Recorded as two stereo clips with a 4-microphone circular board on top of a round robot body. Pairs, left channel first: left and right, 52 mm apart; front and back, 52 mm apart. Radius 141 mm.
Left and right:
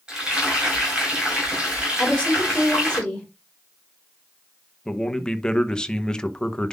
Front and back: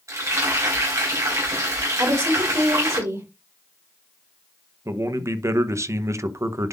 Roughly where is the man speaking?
Behind.